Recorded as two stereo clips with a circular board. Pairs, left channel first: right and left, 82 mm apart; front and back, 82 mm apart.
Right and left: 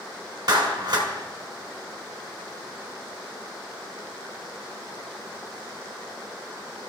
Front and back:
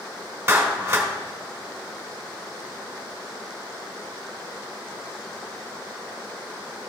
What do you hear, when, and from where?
0.5 s a clap: 125° left, 1.8 m